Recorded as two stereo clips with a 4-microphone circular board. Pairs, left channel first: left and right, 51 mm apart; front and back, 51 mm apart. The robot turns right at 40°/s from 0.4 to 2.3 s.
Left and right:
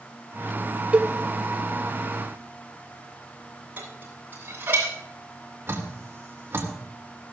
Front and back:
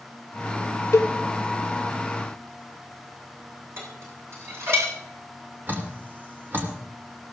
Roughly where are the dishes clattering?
Behind right.